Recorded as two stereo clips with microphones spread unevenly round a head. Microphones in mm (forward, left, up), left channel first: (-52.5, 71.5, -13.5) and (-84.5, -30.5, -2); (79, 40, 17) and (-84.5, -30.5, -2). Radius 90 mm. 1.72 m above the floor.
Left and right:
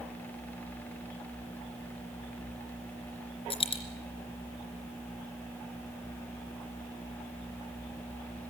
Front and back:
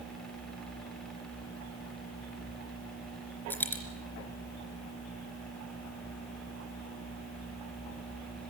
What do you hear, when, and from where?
3.5 s a dropped coin: 100° left, 3 m